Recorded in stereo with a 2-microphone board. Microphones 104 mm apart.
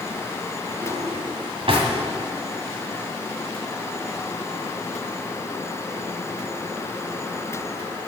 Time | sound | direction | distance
0.8 | a drawer | 60° right (ahead or behind) | 1.9 m